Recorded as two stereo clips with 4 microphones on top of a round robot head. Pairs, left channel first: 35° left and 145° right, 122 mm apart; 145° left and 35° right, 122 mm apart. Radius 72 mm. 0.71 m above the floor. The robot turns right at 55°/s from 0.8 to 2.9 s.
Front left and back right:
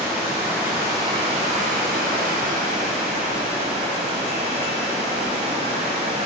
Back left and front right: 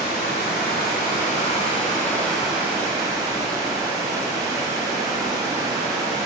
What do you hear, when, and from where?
0.0 s running water: 145° left, 1.7 m; by 6.3 s 100° right, 1.7 m